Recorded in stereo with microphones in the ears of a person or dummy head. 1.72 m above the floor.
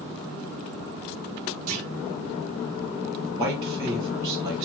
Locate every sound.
1.7 s a clunk: 40° right (ahead or behind), 1.8 m
3.3 s a man speaking: 20° right (ahead or behind), 3 m